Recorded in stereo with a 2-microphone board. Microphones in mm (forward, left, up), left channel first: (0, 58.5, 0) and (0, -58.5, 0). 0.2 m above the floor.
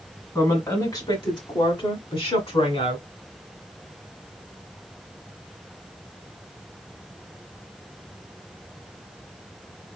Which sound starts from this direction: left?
A woman speaking, at 0.3 s.